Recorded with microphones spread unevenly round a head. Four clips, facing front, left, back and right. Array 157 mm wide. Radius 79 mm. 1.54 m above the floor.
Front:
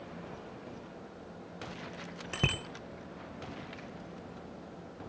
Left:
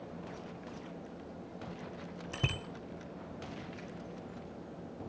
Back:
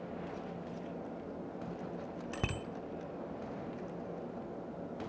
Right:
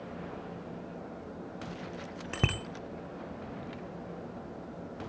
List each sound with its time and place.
2.3 s a bicycle bell: 55° right, 3 m